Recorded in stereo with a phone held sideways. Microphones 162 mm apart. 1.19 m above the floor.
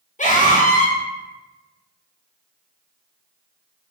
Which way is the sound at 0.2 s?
50° left (ahead or behind).